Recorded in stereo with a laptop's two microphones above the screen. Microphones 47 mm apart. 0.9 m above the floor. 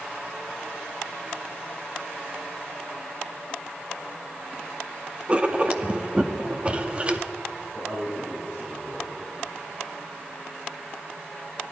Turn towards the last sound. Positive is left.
turn(degrees=-30)  # may be behind; listen again after turning